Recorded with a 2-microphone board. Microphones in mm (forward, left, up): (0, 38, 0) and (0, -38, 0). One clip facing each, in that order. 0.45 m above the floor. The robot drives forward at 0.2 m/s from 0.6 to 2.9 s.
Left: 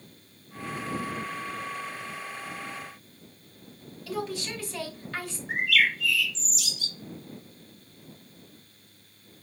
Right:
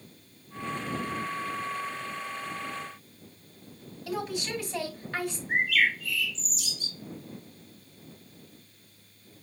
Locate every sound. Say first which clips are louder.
4.1 s a woman speaking: even; 20° right (ahead or behind), 1.7 m
5.5 s a bird: left 1 dB; 85° left, 1.0 m